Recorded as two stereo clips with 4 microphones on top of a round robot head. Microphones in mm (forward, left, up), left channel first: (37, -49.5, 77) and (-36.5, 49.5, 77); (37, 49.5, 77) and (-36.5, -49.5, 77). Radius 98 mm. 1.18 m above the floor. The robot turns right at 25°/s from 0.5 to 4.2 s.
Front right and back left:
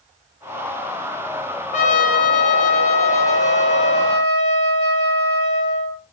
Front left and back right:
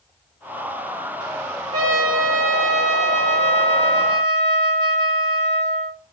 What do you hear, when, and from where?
1.7 s a trumpet: 65° right, 4 m; by 6.0 s 5° right, 4 m